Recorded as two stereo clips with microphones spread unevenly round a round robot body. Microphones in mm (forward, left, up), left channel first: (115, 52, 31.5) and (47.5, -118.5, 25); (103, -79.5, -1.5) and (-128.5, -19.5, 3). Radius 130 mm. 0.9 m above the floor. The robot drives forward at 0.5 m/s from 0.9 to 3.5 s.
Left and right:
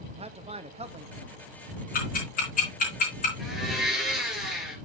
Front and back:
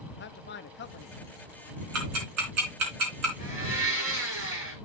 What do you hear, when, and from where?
0.1 s a man speaking: 55° right, 1.0 m; by 1.4 s 70° right, 0.9 m
1.9 s ticking: 125° left, 4 m; by 3.3 s 135° left, 4.5 m
3.4 s a blender: 165° right, 7 m